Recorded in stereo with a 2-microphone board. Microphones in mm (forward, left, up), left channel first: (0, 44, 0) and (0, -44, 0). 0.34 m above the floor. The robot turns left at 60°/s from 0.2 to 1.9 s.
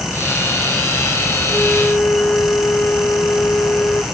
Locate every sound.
1.5 s a flute: 5° right (ahead or behind); by 4.0 s 20° left (ahead or behind)